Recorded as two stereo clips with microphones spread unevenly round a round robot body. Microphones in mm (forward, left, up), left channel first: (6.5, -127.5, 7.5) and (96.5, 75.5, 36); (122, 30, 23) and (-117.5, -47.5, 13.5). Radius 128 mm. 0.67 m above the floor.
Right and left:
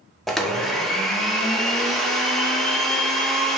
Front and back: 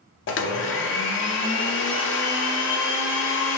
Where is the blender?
25° right, 0.5 m.